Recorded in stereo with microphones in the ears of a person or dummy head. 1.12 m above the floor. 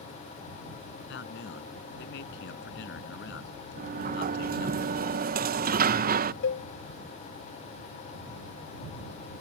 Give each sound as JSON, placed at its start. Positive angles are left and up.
{"t": 1.0, "sound": "a man speaking", "side_deg": 70}
{"t": 3.8, "sound": "a sliding door", "side_deg": -45}
{"t": 6.4, "sound": "a cowbell", "side_deg": 65}